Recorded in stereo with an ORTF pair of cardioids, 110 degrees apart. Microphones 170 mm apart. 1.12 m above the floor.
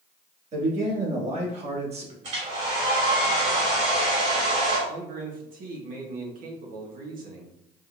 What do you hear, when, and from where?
0.5 s a man speaking: 40° right, 2.5 m
2.2 s a hair dryer: 45° right, 2 m
4.9 s a man speaking: 60° right, 1.6 m